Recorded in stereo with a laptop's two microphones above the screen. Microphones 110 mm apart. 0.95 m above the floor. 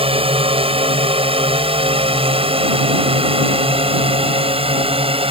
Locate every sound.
0.0 s a drone: 60° right (ahead or behind)